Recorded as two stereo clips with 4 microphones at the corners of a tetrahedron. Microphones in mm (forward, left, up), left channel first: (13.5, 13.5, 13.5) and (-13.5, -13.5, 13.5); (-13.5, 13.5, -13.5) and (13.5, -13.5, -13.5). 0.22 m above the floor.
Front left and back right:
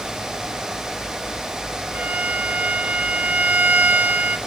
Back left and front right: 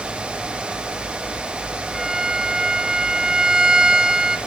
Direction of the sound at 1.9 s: 110° right.